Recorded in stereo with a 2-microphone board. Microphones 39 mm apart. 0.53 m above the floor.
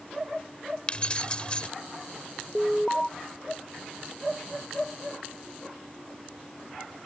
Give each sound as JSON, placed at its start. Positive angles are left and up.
{"t": 0.9, "sound": "keys jangling", "side_deg": 30}
{"t": 2.5, "sound": "an alarm", "side_deg": 20}